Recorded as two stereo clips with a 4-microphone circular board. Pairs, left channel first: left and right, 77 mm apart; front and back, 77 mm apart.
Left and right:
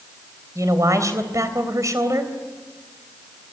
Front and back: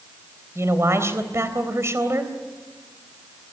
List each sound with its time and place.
0.6 s a man speaking: 130° right, 3.5 m